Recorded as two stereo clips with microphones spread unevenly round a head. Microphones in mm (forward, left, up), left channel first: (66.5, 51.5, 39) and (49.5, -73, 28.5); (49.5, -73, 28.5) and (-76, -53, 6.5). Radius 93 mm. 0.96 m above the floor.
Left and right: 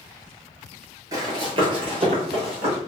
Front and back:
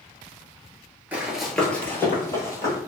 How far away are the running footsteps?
About 0.9 m.